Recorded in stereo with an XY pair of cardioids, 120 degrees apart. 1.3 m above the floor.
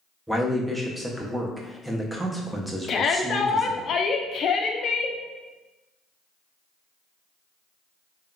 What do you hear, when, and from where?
0.3 s a man speaking: 5° right, 0.6 m
2.9 s a shout: 50° left, 0.5 m